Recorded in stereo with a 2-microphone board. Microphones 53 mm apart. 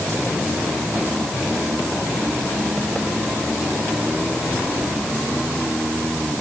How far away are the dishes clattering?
No dishes clattering in this recording.